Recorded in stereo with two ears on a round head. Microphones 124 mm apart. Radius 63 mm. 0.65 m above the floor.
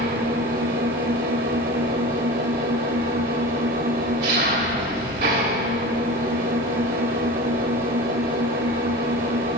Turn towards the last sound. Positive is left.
turn(degrees=-75)  # may be behind; listen again after turning